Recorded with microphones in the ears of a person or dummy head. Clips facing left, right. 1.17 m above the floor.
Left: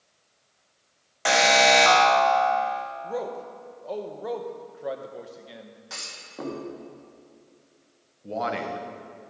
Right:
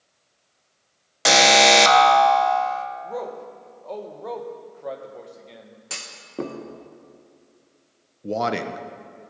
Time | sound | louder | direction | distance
1.2 | an alarm | right 3 dB | 50° right (ahead or behind) | 0.7 m
3.0 | a man speaking | even | 5° left (ahead or behind) | 0.8 m
5.9 | a clunk | right 7 dB | 45° right (ahead or behind) | 0.9 m
8.2 | a man speaking | right 4 dB | 55° right (ahead or behind) | 0.6 m